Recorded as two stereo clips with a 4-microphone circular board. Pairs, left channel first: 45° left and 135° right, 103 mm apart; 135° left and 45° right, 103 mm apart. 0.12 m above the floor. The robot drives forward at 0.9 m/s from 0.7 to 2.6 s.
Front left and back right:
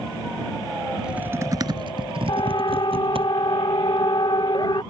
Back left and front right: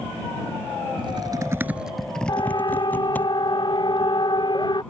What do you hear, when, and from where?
1.0 s typing on a keyboard: 50° right; by 3.3 s 155° right
2.3 s a siren: 85° left; by 4.8 s 90° left